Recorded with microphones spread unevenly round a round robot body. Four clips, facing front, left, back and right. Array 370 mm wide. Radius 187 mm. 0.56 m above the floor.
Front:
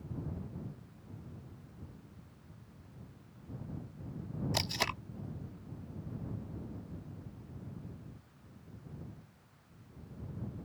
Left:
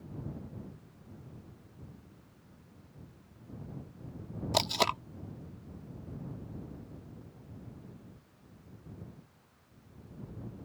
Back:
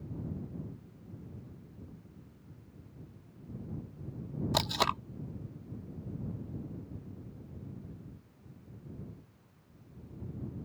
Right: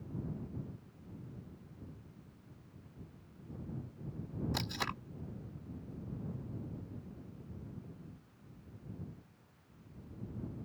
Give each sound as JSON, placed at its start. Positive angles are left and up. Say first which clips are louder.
{"t": 4.5, "sound": "tape being pulled", "louder": "left 10 dB, back 9 dB", "azimuth_deg": 110}